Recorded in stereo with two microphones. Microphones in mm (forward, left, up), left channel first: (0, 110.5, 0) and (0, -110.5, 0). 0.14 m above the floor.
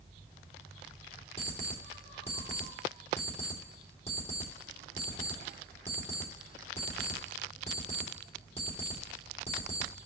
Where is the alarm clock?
30° left (ahead or behind), 3 m.